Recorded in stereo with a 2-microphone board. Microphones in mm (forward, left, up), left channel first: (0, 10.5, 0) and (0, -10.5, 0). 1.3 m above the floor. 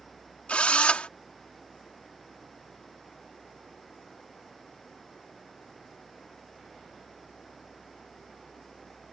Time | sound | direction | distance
0.5 | a drill | 75° left (ahead or behind) | ?